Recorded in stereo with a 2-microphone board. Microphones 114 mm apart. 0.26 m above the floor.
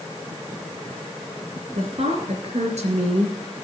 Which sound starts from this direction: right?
A woman speaking, at 1.8 s.